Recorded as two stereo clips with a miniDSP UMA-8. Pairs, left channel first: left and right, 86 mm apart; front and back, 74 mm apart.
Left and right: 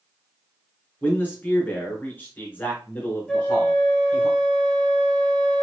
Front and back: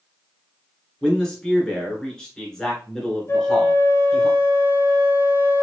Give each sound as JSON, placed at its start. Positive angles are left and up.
{"t": 1.0, "sound": "a man speaking", "azimuth_deg": 65, "distance_m": 1.5}
{"t": 3.3, "sound": "a flute", "azimuth_deg": 15, "distance_m": 0.5}